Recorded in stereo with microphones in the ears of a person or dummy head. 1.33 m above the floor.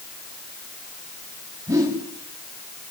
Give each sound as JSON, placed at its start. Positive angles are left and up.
{"t": 1.7, "sound": "a whoosh", "side_deg": -20, "distance_m": 3.5}